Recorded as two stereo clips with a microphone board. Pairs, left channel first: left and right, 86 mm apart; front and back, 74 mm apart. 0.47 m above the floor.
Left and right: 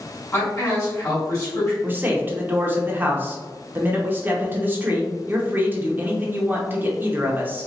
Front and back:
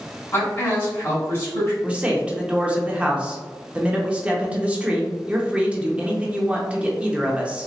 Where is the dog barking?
I don't hear a dog barking.